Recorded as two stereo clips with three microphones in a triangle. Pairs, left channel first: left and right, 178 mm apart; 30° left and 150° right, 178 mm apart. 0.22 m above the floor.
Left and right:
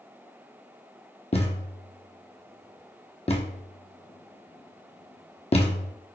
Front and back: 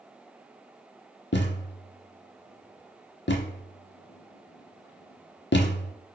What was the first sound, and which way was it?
A thud, 35° left.